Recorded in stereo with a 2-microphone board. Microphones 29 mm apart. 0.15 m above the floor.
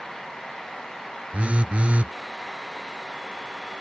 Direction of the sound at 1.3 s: 45° right (ahead or behind).